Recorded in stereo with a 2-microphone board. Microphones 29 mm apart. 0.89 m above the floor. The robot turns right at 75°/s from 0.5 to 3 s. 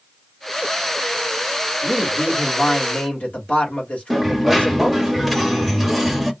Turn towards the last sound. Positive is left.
turn(degrees=5)  # may be behind; listen again after turning